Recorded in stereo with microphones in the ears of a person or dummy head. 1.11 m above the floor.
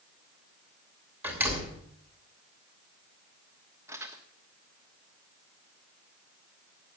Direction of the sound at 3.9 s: 10° right (ahead or behind).